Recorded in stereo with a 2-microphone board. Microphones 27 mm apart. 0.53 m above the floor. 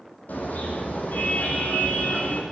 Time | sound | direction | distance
0.3 | a car horn | 85° left | 10 m